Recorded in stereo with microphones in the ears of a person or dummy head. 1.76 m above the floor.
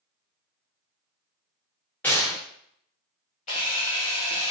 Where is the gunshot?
15° left (ahead or behind), 1.2 m.